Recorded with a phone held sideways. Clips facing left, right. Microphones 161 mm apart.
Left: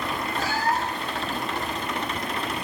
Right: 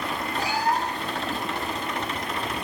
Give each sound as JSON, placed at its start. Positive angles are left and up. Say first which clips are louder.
{"t": 0.4, "sound": "a cat meowing", "louder": "right 1 dB", "side_deg": -15, "distance_m": 1.4}